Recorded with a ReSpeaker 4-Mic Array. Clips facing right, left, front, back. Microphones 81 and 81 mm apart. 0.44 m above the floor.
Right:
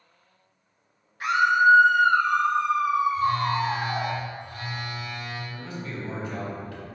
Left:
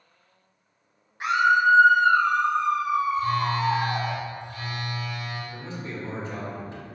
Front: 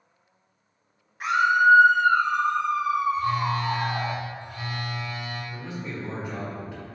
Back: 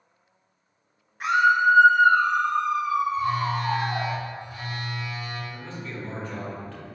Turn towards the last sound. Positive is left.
turn(degrees=65)